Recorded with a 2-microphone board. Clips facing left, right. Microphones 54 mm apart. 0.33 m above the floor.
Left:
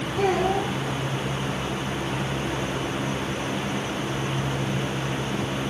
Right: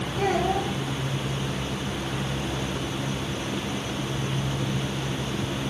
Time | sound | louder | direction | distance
0.2 | a child speaking | left 2 dB | 50° left (ahead or behind) | 6.5 m